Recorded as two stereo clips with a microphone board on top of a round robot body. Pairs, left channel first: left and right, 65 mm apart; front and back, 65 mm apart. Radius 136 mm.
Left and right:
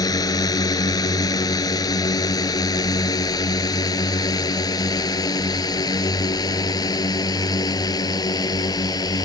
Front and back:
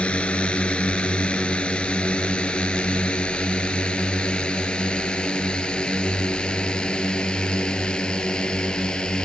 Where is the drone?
75° left; by 9.3 s 80° left.